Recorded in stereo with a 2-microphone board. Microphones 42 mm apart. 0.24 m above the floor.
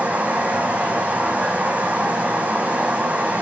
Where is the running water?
35° right (ahead or behind), 0.9 m.